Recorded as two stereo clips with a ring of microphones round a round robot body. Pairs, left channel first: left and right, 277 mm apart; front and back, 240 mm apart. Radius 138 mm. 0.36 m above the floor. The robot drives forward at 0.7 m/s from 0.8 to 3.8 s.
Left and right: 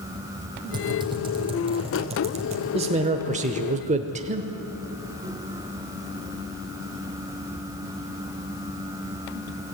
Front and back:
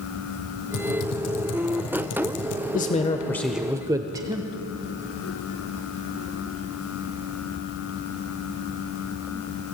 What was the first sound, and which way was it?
Typing on a keyboard, 15° right.